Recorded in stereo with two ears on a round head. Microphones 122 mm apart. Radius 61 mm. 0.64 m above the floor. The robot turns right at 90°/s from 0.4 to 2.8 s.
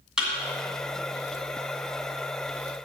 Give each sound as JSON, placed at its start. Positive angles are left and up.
{"t": 0.2, "sound": "a thud", "side_deg": -5, "distance_m": 2.0}